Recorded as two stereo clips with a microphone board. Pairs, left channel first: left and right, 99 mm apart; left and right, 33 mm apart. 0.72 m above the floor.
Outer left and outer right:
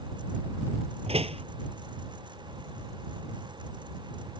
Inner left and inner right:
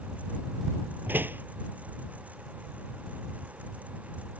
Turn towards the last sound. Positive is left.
turn(degrees=-80)